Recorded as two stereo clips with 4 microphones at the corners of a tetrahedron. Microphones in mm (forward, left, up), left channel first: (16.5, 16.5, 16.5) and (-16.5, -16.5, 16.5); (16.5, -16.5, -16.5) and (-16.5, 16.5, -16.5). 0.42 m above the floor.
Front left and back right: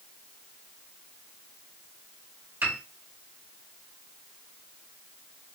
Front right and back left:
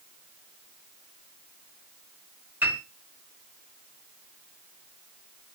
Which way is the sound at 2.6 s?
Straight behind.